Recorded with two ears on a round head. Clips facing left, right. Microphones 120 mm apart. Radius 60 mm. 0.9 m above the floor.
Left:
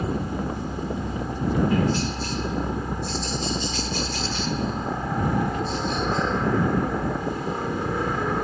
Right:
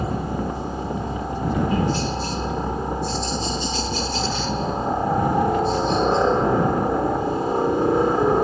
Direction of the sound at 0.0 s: 25° right (ahead or behind).